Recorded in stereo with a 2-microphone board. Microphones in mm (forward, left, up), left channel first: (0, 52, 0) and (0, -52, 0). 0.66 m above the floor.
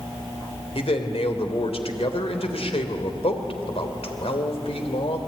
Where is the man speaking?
70° left (ahead or behind), 3 m.